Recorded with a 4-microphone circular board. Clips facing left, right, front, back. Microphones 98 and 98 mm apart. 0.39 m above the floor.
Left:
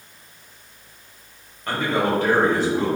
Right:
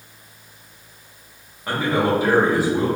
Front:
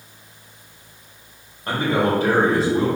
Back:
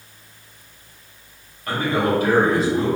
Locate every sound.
1.7 s a man speaking: 20° right, 1.1 m